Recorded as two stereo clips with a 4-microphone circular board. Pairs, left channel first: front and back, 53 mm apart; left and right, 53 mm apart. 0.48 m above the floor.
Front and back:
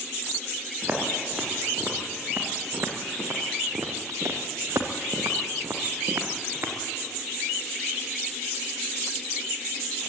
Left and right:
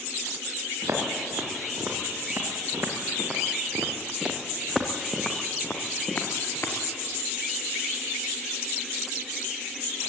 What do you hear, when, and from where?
0.8 s footsteps: 120° right, 6 m; by 6.8 s 135° left, 4 m